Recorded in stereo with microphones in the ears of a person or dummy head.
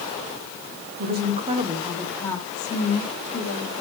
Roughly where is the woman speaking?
Right.